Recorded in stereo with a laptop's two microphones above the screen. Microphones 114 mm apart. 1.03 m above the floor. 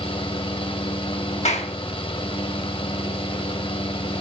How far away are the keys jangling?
No keys jangling in this recording.